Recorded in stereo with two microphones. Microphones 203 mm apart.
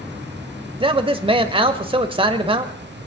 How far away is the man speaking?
About 0.9 m.